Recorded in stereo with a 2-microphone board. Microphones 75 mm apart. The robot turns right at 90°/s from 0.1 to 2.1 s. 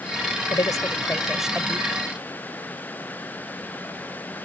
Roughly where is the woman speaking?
Left.